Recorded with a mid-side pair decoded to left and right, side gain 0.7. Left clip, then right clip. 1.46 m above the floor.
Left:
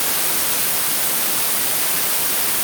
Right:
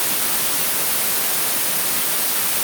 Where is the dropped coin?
No dropped coin in this recording.